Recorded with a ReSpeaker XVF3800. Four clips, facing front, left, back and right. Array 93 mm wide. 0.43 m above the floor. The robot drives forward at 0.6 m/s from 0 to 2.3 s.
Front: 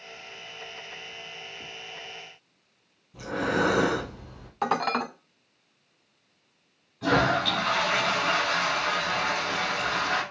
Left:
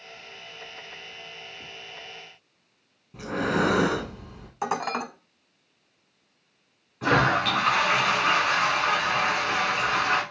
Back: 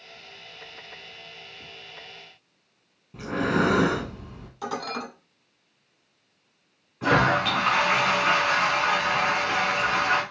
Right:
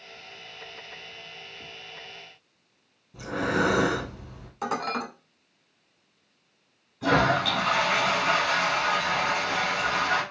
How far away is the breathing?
About 2 m.